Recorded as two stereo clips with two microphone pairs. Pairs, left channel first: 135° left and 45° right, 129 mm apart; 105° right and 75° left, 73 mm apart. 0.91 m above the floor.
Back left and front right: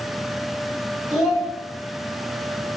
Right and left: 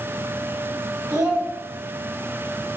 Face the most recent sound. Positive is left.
turn(degrees=45)